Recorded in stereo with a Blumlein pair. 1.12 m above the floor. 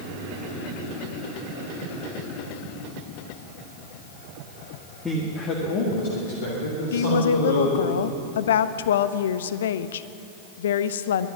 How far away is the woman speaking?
About 0.6 m.